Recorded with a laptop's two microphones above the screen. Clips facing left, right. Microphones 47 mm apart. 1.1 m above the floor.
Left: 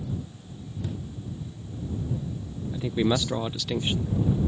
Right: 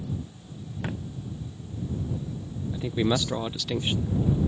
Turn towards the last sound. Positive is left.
turn(degrees=0)  # may be behind; listen again after turning